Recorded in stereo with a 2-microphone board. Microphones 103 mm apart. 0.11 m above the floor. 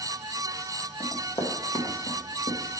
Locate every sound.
1.0 s running footsteps: 35° left (ahead or behind), 3 m; by 2.6 s 55° left (ahead or behind), 3 m